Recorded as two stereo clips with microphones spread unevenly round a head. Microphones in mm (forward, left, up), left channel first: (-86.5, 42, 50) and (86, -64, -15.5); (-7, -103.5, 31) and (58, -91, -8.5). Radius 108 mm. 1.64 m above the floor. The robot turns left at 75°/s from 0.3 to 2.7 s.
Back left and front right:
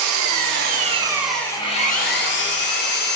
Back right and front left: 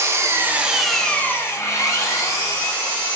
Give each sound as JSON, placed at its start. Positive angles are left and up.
{"t": 0.0, "sound": "an engine running", "azimuth_deg": -55, "distance_m": 1.4}